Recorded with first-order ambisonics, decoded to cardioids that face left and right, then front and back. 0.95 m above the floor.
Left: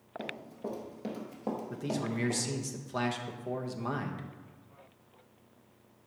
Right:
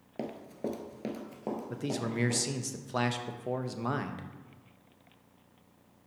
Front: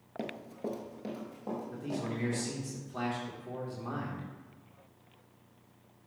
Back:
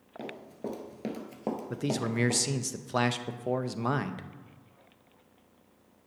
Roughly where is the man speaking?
Behind.